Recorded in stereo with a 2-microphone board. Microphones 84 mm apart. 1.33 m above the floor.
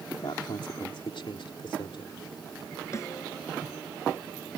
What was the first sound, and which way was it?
A man speaking, 65° left (ahead or behind).